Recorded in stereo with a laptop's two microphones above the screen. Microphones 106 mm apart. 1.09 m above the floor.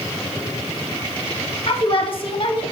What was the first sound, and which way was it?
A woman speaking, 50° left (ahead or behind).